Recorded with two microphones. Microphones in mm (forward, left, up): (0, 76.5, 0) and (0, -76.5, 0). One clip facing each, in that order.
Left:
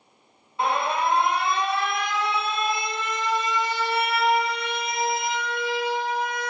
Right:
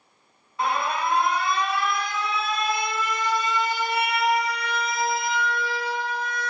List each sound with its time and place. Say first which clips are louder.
0.6 s an alarm: left 2 dB; 25° left (ahead or behind), 1.3 m